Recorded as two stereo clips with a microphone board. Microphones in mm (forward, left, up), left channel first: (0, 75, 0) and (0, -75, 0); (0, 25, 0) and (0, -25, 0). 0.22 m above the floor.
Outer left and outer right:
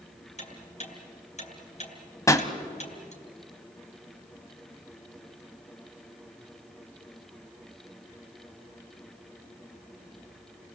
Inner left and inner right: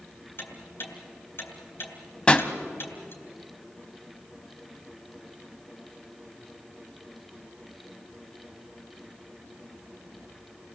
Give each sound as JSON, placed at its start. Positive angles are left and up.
{"t": 0.4, "sound": "ticking", "side_deg": 50, "distance_m": 3.5}
{"t": 2.3, "sound": "a pop", "side_deg": 20, "distance_m": 1.3}